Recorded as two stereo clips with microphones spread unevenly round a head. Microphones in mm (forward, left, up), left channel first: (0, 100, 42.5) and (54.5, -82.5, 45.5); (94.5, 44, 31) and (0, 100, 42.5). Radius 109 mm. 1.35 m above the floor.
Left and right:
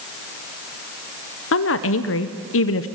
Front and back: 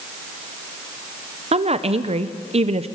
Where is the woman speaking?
115° left, 0.9 m.